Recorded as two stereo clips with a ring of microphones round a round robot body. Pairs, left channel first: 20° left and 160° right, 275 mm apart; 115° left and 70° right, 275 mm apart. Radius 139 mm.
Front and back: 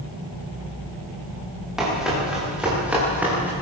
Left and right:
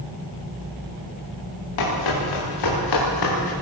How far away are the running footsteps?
About 10 m.